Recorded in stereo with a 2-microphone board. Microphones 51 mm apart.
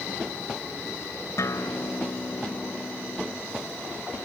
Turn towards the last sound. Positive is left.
turn(degrees=70)  # may be behind; listen again after turning